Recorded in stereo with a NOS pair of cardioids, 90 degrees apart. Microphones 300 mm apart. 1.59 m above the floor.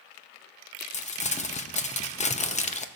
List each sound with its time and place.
0.9 s crumpling: 25° left, 0.7 m